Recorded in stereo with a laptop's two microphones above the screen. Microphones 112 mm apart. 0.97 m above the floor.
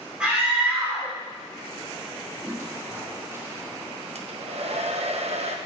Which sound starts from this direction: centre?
A scream, at 0.2 s.